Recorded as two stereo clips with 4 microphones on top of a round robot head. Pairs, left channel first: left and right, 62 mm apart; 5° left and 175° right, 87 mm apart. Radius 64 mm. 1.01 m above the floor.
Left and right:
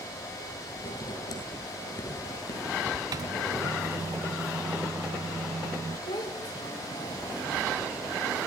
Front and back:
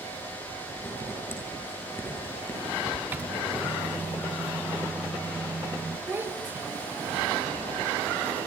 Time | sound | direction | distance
0.8 | writing | 70° left | 8.5 m
3.1 | a microwave | 105° right | 0.7 m
6.1 | a child speaking | 120° left | 2.5 m